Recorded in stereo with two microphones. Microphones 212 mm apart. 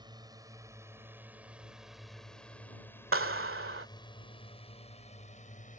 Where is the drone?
20° right (ahead or behind); by 5.8 s 40° left (ahead or behind).